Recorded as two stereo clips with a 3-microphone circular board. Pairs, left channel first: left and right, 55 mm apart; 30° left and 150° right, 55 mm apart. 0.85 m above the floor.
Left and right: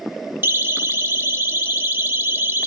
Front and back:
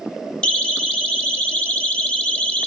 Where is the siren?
40° right, 7.5 m; by 2.7 s 35° right, 6.5 m.